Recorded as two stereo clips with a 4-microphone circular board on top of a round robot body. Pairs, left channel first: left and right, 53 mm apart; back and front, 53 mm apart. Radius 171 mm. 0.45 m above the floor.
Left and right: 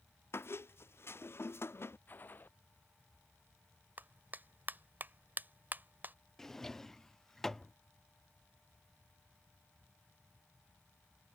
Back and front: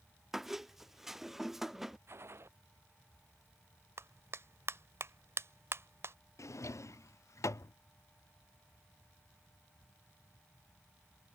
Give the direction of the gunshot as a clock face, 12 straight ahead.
11 o'clock.